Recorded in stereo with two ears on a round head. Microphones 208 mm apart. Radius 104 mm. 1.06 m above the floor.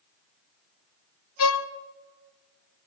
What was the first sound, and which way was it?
A violin, 65° left (ahead or behind).